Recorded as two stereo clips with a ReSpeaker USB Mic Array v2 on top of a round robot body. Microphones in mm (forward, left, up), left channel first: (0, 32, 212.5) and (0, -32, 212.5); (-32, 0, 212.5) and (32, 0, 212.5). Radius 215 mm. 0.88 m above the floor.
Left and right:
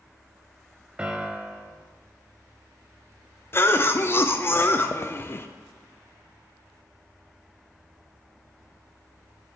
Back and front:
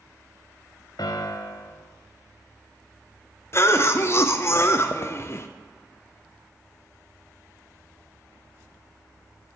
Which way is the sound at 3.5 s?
140° left.